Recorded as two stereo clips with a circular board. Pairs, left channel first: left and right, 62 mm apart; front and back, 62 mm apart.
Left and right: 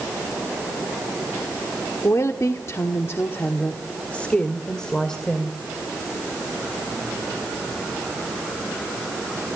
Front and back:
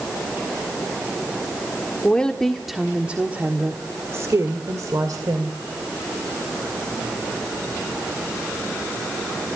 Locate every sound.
2.0 s a woman speaking: 70° left, 1.4 m; by 5.6 s 175° left, 2.5 m